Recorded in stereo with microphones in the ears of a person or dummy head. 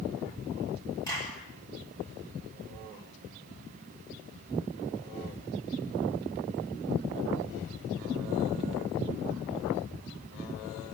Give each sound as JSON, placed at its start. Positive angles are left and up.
{"t": 1.1, "sound": "a clap", "side_deg": 20, "distance_m": 9.5}